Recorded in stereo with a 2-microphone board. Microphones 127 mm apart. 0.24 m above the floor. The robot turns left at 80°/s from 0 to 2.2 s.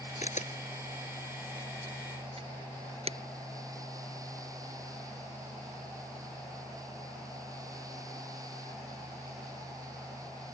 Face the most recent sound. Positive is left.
turn(degrees=-55)  # may be behind; listen again after turning